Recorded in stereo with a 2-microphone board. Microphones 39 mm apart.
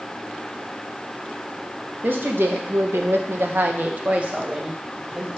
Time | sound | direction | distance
2.0 | a woman speaking | 60° right (ahead or behind) | 1.1 m